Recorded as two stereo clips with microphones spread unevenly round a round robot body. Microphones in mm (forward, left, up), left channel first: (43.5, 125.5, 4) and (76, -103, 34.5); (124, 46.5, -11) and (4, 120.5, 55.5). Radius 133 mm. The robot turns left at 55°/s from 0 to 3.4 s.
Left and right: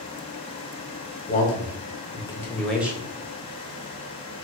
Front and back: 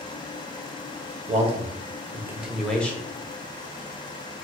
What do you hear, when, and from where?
1.3 s a man speaking: 95° left, 1.1 m; by 3.0 s straight ahead, 1.1 m